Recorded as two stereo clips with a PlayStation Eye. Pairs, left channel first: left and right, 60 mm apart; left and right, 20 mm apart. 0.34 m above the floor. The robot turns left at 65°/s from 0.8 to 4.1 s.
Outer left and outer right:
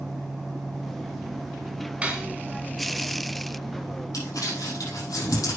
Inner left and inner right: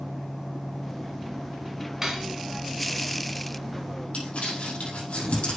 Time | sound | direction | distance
2.0 | cutlery clinking | 20° right (ahead or behind) | 2 m
4.1 | crumpling | 75° left (ahead or behind) | 6 m